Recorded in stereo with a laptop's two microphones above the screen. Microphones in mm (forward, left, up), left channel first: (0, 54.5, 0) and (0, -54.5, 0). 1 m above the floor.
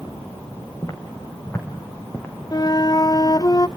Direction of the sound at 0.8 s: 35° left (ahead or behind).